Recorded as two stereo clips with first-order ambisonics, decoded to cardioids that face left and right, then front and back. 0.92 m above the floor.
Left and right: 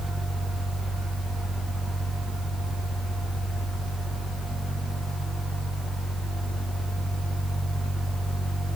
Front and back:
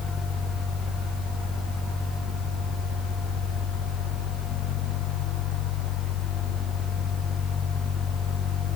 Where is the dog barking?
I don't hear a dog barking.